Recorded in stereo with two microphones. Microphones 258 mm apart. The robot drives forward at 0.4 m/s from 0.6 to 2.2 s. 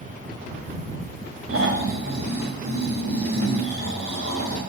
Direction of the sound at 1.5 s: 60° right (ahead or behind).